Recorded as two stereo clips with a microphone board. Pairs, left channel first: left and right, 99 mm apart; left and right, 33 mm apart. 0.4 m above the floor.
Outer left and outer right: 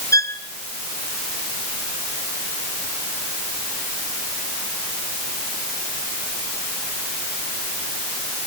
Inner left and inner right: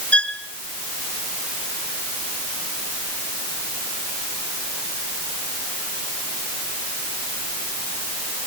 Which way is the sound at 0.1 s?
35° left (ahead or behind).